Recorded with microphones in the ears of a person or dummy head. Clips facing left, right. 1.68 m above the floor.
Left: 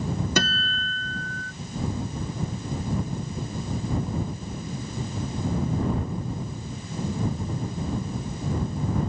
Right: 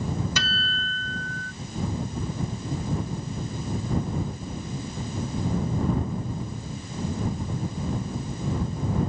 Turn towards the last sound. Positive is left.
turn(degrees=45)  # may be behind; listen again after turning